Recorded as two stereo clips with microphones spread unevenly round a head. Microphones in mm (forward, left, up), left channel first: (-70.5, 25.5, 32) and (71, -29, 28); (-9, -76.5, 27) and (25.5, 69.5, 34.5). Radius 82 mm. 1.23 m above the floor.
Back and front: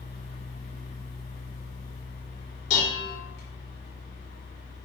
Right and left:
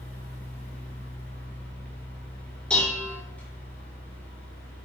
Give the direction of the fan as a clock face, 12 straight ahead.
6 o'clock.